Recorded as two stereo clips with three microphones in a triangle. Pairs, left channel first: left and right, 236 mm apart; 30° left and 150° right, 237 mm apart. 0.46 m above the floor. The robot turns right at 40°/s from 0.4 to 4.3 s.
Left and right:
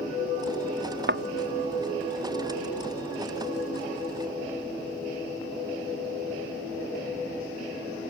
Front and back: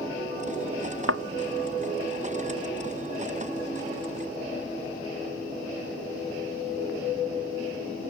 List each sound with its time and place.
1.1 s a thud: 130° right; by 1.2 s 125° right